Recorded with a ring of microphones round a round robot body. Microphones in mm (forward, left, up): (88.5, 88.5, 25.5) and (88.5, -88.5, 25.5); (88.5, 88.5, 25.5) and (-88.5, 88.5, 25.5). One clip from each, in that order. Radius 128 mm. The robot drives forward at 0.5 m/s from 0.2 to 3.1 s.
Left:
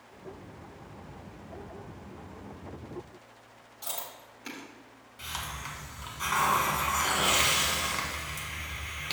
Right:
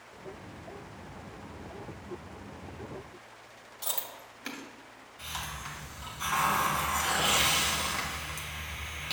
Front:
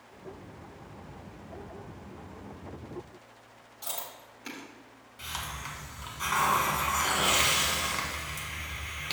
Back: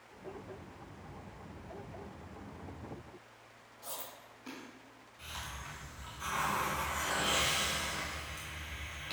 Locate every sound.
3.8 s chewing: 40° right, 1.6 m
5.2 s a hiss: 25° left, 1.3 m